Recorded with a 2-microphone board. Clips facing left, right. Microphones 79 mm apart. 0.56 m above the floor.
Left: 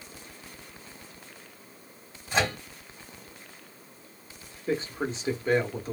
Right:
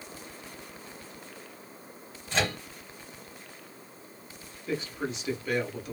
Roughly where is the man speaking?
Left.